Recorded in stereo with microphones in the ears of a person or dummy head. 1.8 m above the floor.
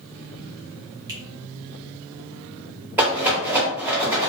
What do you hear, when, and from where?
1.1 s a finger snap: 20° right (ahead or behind), 0.7 m
3.0 s a rattle: 5° right (ahead or behind), 1.0 m